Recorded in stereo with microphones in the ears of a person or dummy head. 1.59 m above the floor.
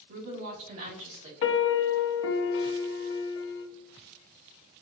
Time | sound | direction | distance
0.1 | a woman speaking | 55° right (ahead or behind) | 1.5 m
1.4 | a piano | 70° left (ahead or behind) | 0.5 m